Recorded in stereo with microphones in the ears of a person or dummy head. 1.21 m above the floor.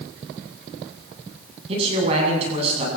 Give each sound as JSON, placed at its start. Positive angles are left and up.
{"t": 1.7, "sound": "a man speaking", "side_deg": -35, "distance_m": 9.0}